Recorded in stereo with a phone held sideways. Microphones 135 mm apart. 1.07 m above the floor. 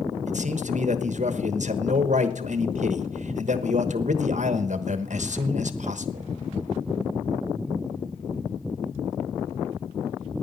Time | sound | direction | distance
0.3 | a man speaking | 65° right (ahead or behind) | 1.0 m